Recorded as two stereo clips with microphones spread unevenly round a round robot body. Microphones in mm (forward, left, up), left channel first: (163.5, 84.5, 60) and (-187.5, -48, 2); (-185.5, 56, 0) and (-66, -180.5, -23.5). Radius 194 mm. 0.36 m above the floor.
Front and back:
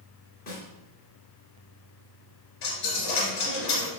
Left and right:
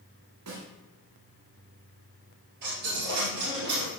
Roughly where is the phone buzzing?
I don't hear a phone buzzing.